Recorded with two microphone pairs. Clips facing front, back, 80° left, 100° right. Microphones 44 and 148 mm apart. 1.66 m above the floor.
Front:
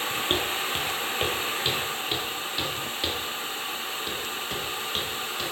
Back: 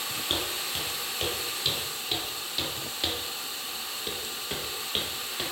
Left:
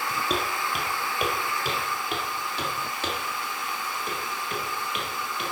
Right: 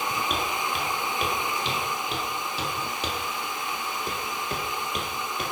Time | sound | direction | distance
0.3 | footsteps | 30° left | 2 m